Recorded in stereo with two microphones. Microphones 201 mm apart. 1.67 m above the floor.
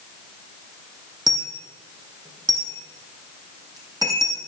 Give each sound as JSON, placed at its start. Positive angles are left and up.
{"t": 1.3, "sound": "a dropped coin", "side_deg": -20, "distance_m": 3.0}